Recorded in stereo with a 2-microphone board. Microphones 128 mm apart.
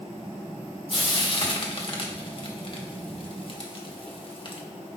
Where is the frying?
45° left (ahead or behind), 1.1 m.